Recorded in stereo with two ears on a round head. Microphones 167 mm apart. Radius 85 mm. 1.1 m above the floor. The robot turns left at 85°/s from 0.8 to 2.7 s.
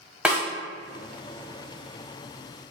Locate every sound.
0.2 s a snare drum: 5° right (ahead or behind), 1.0 m